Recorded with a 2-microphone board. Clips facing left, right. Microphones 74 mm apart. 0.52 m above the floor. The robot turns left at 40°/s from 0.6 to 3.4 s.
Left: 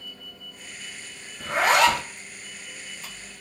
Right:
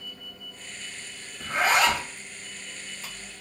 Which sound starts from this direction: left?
A zipper, at 1.4 s.